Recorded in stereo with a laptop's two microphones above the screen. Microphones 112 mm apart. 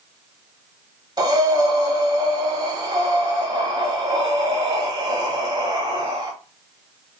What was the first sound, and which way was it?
Breathing, 40° right (ahead or behind).